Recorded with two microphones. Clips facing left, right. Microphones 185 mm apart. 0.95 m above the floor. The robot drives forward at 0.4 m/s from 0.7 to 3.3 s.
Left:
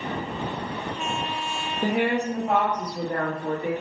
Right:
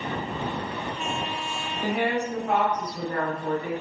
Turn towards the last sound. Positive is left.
turn(degrees=25)  # may be behind; listen again after turning